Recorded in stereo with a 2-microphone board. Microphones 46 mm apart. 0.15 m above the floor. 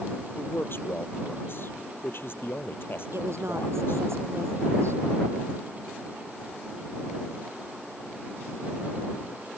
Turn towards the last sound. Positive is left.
turn(degrees=-75)  # may be behind; listen again after turning